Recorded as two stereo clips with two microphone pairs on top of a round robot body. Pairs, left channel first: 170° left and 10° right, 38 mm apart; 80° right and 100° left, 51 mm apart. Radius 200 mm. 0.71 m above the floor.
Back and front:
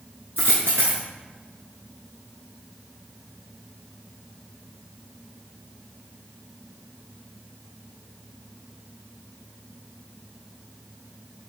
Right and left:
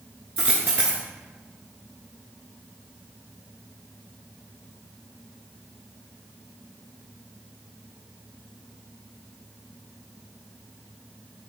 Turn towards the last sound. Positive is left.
turn(degrees=30)